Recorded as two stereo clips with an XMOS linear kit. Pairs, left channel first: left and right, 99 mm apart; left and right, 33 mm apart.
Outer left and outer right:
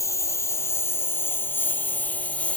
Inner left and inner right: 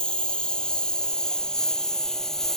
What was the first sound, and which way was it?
A lawn mower, 30° left (ahead or behind).